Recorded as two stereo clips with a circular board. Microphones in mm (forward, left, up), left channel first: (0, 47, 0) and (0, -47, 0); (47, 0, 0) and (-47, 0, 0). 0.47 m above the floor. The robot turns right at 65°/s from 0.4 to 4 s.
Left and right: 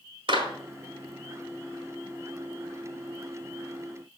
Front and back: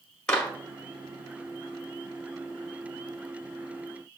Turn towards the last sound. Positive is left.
turn(degrees=155)